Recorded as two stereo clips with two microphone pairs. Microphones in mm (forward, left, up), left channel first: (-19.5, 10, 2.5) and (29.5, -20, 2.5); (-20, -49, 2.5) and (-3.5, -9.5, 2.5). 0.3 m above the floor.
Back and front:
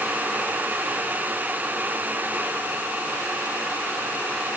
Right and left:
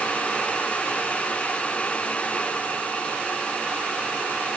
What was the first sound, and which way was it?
Only background noise.